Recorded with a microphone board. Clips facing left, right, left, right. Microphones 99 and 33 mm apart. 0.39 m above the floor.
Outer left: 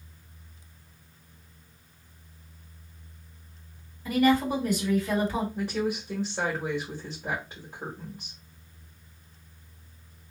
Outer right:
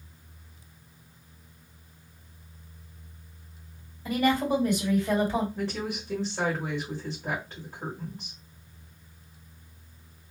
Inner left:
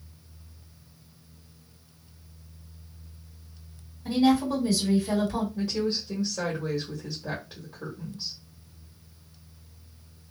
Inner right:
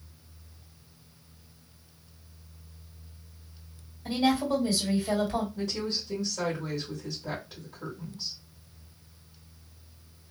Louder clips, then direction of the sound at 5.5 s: Outer left 3 dB, inner left 4 dB; 15° left (ahead or behind).